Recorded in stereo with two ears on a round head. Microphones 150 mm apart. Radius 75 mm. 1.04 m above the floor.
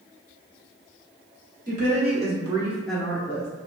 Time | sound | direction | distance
1.7 | a woman speaking | 50° right (ahead or behind) | 1.1 m